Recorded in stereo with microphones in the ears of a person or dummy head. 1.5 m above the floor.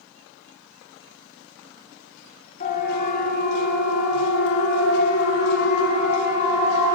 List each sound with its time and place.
2.6 s a siren: 45° left (ahead or behind), 3.5 m; by 7.0 s 40° left (ahead or behind), 5.5 m